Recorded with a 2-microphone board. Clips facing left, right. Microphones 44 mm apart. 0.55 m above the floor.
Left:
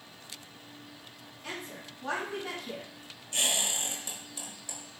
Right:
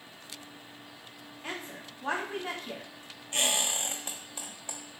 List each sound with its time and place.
1.4 s a woman speaking: 30° right (ahead or behind), 1.1 m
3.3 s a squeak: 40° right (ahead or behind), 1.0 m